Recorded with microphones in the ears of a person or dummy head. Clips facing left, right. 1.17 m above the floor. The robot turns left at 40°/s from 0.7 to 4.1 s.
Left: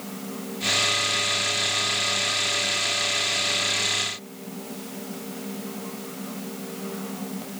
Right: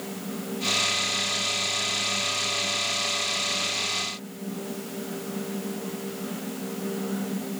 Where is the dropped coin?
No dropped coin in this recording.